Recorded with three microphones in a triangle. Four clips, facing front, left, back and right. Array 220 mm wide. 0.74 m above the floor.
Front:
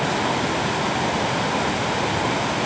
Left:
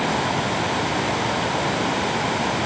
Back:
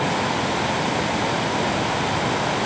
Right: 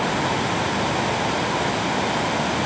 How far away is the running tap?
No running tap in this recording.